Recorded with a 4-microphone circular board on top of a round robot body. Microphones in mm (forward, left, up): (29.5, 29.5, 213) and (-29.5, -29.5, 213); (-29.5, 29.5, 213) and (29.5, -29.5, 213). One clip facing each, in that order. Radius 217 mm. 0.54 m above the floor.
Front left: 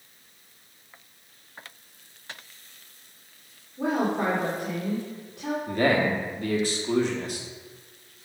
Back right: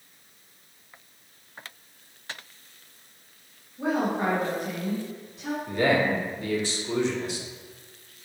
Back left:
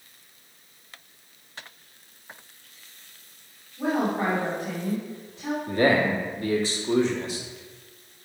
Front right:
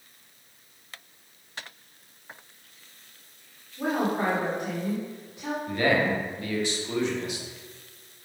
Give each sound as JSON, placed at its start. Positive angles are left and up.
{"t": 3.8, "sound": "a woman speaking", "azimuth_deg": 25, "distance_m": 2.0}
{"t": 5.7, "sound": "a man speaking", "azimuth_deg": 80, "distance_m": 1.7}